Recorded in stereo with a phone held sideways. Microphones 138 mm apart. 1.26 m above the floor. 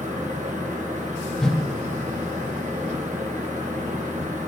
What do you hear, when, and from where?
0.0 s a fan: 75° right (ahead or behind), 1.3 m
1.4 s a whoosh: 5° left (ahead or behind), 0.6 m